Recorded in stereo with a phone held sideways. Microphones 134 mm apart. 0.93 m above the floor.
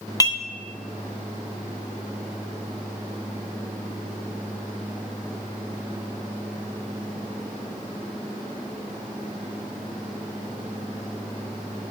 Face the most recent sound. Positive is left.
turn(degrees=25)  # may be behind; listen again after turning